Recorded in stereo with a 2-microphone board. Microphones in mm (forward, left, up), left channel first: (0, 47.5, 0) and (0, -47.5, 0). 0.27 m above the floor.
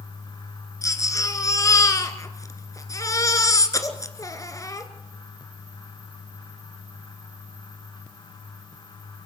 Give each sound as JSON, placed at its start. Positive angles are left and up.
{"t": 0.8, "sound": "a baby crying", "side_deg": 35, "distance_m": 1.6}